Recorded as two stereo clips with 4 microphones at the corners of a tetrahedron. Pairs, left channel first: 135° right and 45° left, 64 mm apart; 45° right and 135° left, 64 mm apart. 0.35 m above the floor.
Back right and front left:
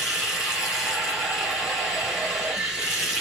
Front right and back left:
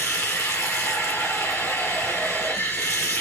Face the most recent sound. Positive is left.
turn(degrees=-30)